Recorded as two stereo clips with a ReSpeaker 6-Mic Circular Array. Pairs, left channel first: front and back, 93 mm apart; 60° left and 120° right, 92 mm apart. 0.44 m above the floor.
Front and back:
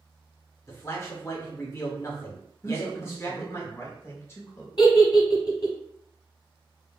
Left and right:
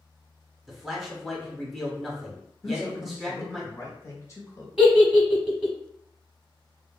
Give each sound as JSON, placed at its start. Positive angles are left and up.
{"t": 0.7, "sound": "a man speaking", "azimuth_deg": -35, "distance_m": 1.0}
{"t": 2.6, "sound": "a man speaking", "azimuth_deg": 40, "distance_m": 1.0}
{"t": 4.8, "sound": "a giggle", "azimuth_deg": -40, "distance_m": 0.8}